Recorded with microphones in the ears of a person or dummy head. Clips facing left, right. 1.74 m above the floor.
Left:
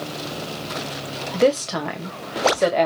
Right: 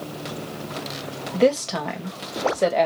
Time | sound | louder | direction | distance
1.3 | a woman speaking | left 1 dB | centre (ahead or behind) | 1.0 m